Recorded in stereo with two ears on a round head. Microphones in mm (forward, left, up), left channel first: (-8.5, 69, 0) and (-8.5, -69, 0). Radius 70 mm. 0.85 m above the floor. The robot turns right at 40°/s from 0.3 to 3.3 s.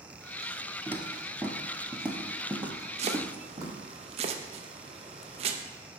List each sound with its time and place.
0.9 s footsteps: 15° right (ahead or behind), 1.2 m; by 3.8 s 25° right (ahead or behind), 1.9 m
3.0 s chopping: 40° right (ahead or behind), 0.5 m